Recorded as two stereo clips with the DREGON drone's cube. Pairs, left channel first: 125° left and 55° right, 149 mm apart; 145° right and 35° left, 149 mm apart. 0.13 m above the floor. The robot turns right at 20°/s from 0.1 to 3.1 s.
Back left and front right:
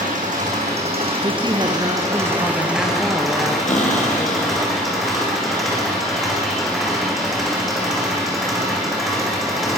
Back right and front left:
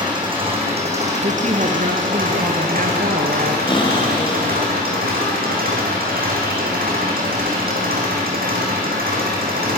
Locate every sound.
0.0 s an engine running: 25° right, 5.5 m; by 9.8 s 35° left, 5.5 m
1.2 s a woman speaking: straight ahead, 2.5 m; by 3.6 s 35° left, 2.5 m
3.7 s a cupboard door: 160° left, 4 m